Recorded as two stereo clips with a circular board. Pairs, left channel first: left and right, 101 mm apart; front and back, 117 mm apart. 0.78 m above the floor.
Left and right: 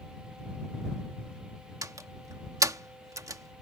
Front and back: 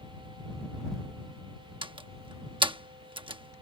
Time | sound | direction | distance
1.8 | a door slam | 140° right | ?